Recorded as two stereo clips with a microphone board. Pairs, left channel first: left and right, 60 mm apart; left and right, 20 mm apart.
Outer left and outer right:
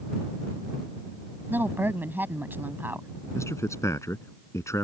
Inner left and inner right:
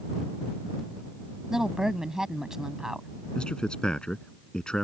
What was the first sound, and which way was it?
A woman speaking, 35° right (ahead or behind).